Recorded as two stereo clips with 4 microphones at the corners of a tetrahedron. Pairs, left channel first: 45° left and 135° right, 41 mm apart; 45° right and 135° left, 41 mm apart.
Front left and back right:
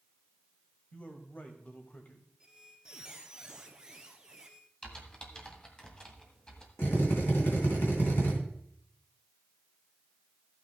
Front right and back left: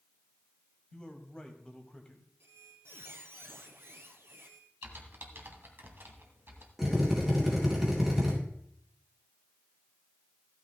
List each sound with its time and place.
0.9 s a man speaking: 15° left, 1.6 m
2.4 s a squeak: 155° left, 1.2 m
4.8 s typing on a keyboard: 115° left, 1.6 m
6.8 s a drill: 50° left, 3.5 m